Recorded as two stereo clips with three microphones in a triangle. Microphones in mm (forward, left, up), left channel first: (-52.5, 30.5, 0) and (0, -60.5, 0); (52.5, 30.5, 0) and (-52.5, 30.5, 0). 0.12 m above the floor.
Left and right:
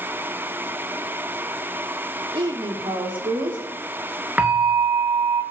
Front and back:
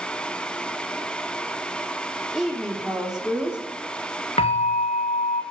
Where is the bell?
15° left, 2 m.